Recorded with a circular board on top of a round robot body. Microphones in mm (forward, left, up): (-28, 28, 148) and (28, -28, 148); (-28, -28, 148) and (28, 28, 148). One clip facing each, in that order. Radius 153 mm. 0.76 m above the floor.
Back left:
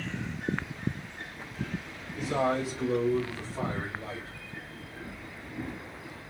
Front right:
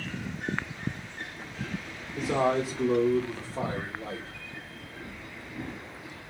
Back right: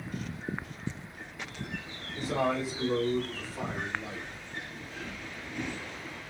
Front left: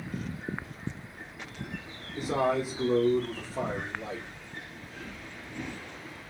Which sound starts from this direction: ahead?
A man speaking, at 2.2 s.